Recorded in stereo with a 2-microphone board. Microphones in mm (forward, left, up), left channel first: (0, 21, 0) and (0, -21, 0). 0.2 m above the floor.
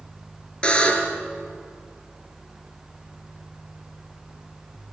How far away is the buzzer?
About 3 m.